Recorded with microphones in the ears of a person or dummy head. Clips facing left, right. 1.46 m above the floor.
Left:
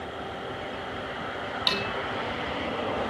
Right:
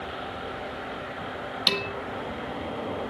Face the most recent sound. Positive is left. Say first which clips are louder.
# right 2 dB
turn(degrees=-35)  # may be behind; listen again after turning